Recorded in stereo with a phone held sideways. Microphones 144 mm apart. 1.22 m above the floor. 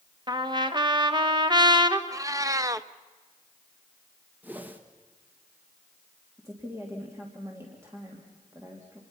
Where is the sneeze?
I don't hear a sneeze.